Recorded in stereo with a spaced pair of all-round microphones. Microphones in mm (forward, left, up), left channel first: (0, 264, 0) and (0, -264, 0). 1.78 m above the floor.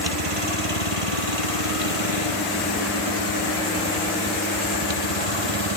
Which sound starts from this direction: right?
A vehicle, at 0.0 s.